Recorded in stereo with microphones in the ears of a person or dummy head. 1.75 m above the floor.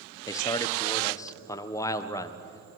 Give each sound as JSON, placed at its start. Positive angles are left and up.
{"t": 0.3, "sound": "a man speaking", "side_deg": 15, "distance_m": 1.5}